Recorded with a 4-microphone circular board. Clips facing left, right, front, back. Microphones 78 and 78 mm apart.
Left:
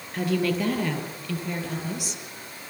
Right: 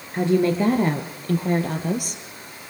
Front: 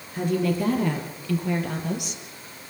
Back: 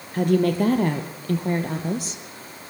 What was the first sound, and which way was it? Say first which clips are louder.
A woman speaking: right 6 dB, back 4 dB; 155° right.